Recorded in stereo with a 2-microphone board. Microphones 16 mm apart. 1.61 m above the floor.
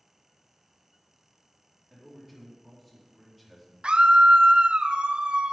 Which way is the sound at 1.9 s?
5° left (ahead or behind).